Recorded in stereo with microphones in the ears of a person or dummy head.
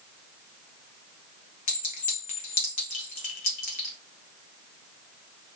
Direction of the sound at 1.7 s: 45° left (ahead or behind).